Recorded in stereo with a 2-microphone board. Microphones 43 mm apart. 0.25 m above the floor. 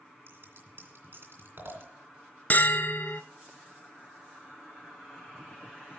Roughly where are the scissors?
Right.